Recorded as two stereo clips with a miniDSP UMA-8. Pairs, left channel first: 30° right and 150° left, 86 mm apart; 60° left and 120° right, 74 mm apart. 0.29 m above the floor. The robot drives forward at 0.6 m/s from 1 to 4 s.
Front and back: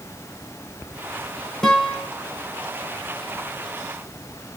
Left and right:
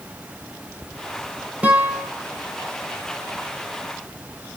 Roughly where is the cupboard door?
I don't hear a cupboard door.